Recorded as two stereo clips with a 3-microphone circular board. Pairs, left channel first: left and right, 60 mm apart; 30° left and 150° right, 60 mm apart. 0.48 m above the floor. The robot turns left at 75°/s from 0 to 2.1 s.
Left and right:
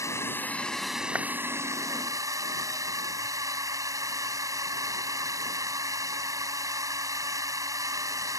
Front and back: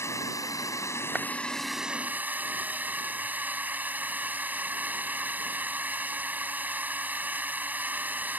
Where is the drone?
65° left; by 8.4 s 90° right.